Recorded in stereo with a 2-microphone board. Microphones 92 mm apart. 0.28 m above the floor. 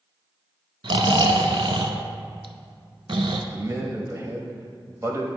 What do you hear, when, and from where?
0.8 s snoring: 70° right (ahead or behind), 0.6 m
3.5 s a man speaking: 30° right (ahead or behind), 1.0 m